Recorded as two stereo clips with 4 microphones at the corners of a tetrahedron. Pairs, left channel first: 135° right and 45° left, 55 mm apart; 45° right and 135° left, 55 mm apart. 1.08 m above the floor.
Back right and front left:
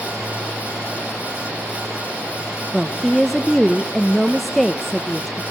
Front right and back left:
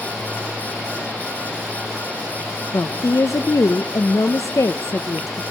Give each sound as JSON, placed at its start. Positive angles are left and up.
{"t": 2.7, "sound": "a woman speaking", "azimuth_deg": -45, "distance_m": 0.6}